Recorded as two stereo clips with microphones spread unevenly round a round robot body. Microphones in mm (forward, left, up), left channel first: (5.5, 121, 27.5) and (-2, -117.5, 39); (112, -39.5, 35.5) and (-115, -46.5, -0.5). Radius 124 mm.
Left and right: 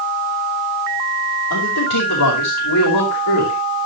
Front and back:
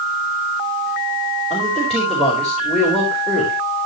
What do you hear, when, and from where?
1.5 s a man speaking: 90° left, 5 m